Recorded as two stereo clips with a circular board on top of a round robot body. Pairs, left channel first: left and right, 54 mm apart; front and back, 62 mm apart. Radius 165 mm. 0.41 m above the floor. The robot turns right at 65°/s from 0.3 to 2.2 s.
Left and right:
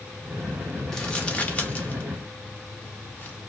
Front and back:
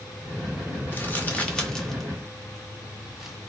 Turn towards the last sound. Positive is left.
turn(degrees=100)